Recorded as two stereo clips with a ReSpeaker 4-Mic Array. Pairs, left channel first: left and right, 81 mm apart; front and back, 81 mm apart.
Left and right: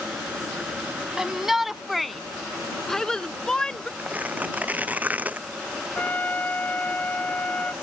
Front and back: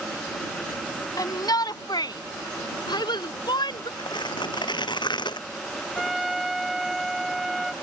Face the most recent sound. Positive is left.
turn(degrees=95)